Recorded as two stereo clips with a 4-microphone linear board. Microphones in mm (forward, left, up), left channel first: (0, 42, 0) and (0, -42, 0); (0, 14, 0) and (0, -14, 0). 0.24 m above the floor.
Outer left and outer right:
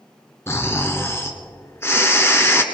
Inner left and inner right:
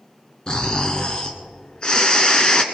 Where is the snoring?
30° left (ahead or behind), 1.2 m.